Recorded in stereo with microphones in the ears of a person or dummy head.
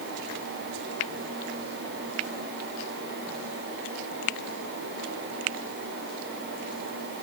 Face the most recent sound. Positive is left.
No sound to turn to.